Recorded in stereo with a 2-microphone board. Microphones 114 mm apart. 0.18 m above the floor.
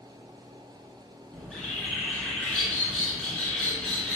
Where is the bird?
Centre (ahead or behind), 1.2 m.